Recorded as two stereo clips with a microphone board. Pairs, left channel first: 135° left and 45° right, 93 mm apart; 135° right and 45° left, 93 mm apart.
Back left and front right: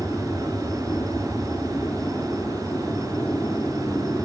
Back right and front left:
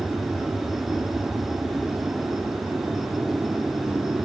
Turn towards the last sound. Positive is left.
turn(degrees=100)